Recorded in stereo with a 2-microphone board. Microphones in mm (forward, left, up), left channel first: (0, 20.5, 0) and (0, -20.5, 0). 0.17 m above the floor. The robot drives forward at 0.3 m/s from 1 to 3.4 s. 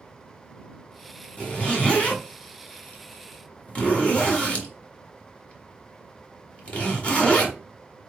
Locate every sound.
1.4 s a zipper: 25° left (ahead or behind), 1.7 m; by 7.5 s 30° left (ahead or behind), 1.5 m